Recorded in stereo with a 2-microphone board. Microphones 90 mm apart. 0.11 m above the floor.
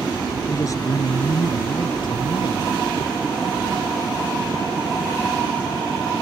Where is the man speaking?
35° left (ahead or behind); by 2.7 s 60° left (ahead or behind).